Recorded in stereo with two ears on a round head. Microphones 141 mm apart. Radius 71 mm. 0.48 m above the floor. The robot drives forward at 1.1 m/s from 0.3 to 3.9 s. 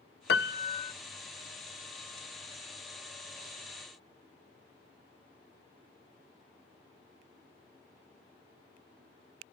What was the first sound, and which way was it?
A piano, 75° left (ahead or behind).